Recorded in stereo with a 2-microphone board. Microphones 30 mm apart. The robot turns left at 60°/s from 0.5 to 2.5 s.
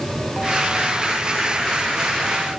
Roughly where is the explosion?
No explosion in this recording.